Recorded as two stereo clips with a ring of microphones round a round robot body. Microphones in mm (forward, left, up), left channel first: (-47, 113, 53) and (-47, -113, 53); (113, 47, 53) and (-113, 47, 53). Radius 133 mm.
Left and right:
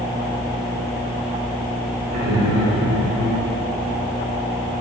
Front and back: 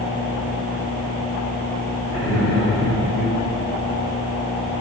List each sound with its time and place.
2.1 s laughter: 65° right, 2.5 m; by 3.3 s 55° right, 3 m